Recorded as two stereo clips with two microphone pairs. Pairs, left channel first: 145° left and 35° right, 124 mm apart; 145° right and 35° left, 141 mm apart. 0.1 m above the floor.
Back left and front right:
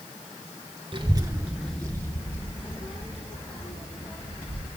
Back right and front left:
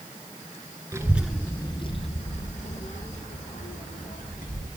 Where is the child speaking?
25° right, 1.3 m; by 4.7 s 170° right, 5 m.